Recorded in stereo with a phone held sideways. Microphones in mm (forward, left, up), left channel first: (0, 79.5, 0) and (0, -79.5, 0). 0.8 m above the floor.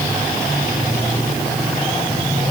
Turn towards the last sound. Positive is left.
No sound to turn to.